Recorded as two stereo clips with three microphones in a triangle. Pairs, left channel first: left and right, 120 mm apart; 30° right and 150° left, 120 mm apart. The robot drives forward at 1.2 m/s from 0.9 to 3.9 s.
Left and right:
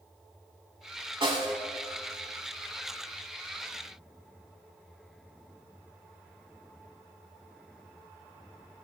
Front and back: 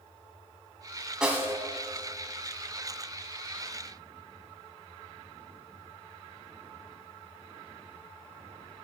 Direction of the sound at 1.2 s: 125° right.